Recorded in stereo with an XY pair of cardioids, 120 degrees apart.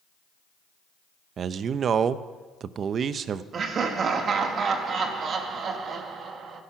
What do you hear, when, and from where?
1.4 s a man speaking: 45° right, 0.7 m
3.5 s laughter: 45° right, 2 m